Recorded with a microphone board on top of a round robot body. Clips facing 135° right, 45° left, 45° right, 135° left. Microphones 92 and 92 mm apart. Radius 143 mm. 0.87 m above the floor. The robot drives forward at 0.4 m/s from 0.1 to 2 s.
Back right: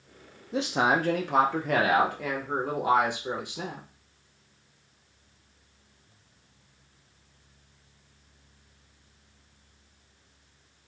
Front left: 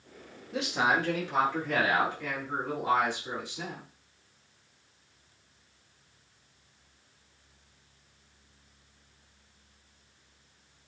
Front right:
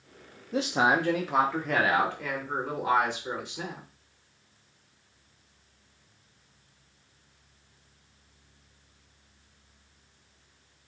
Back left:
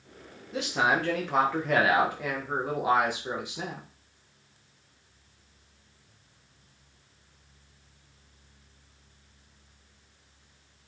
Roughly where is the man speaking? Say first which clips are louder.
Back right 3 dB, front right 2 dB; right.